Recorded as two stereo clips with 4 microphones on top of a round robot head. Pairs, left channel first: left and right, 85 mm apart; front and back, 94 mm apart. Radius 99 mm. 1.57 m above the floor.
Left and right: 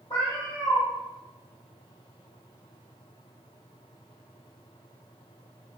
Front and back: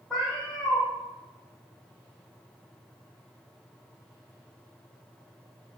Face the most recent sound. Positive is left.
turn(degrees=80)